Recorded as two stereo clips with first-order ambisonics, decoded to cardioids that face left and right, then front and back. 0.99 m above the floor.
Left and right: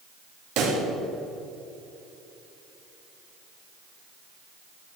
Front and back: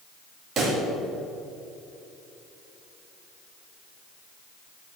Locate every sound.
0.6 s a pop: 120° right, 2.5 m